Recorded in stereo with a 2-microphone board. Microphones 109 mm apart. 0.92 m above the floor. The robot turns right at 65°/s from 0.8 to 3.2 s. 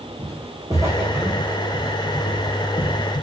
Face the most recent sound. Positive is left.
turn(degrees=50)  # may be behind; listen again after turning